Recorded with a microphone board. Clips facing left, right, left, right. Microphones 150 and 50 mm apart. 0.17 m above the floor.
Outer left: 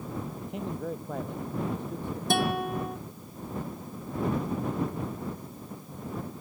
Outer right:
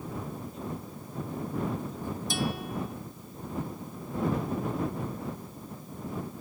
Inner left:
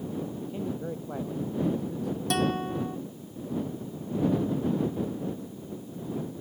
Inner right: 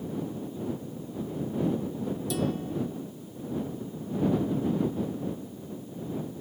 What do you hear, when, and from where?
0.4 s a man speaking: 75° left (ahead or behind); by 2.2 s 65° left (ahead or behind)
2.3 s a guitar: 60° left (ahead or behind)